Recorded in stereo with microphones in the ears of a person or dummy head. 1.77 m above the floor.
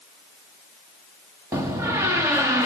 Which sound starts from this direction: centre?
A door slam, at 1.5 s.